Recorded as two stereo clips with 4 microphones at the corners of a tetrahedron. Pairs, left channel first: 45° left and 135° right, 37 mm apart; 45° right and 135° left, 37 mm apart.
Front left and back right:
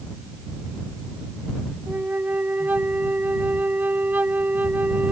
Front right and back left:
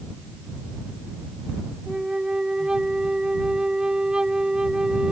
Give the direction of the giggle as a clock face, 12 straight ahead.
I don't hear a giggle.